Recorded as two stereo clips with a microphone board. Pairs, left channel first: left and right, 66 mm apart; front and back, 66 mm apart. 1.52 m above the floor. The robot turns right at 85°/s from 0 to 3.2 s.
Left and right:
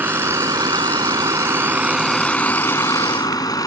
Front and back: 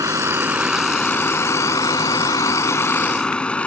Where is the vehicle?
155° right; by 3.7 s 70° left.